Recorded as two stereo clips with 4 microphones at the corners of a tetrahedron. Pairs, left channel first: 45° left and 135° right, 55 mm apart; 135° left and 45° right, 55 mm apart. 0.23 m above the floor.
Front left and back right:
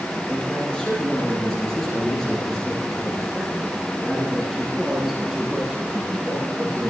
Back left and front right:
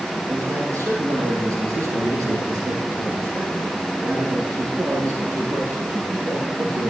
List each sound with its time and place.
0.3 s a man speaking: 25° right, 6.5 m; by 6.9 s 55° right, 9 m